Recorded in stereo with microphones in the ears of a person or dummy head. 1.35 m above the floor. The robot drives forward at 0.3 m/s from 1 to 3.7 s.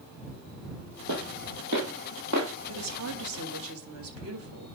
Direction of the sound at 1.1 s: 60° right (ahead or behind).